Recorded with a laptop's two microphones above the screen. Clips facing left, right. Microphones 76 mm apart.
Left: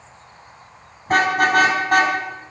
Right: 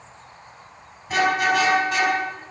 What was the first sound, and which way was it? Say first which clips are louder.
A car horn: left 3 dB; 50° left (ahead or behind).